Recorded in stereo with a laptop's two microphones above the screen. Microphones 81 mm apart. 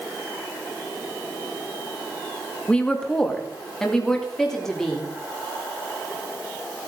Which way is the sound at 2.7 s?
15° left (ahead or behind).